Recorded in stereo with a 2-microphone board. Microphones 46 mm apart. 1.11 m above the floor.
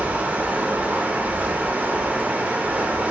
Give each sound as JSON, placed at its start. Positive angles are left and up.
{"t": 0.0, "sound": "running water", "side_deg": -35, "distance_m": 0.7}